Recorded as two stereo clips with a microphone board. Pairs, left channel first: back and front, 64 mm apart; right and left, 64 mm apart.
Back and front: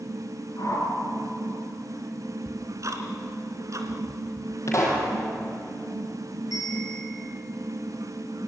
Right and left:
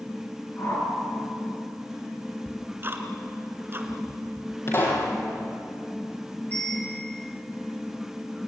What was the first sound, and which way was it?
A whoosh, 140° right.